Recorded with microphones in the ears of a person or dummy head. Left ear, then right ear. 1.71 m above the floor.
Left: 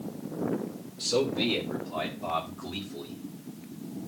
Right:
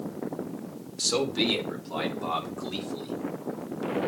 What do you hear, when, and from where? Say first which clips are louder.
1.0 s a man speaking: right 1 dB; 75° right (ahead or behind), 2.5 m; by 3.2 s 70° right (ahead or behind), 4.5 m